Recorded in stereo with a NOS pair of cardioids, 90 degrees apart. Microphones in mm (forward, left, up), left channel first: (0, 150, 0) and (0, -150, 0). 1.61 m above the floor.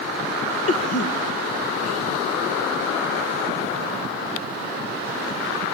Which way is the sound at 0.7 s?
50° left.